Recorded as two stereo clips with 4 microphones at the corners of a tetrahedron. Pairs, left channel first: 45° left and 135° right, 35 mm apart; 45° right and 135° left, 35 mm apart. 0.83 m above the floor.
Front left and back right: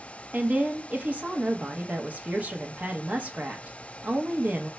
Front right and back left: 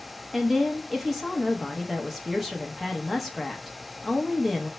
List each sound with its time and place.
0.3 s a woman speaking: 140° right, 0.7 m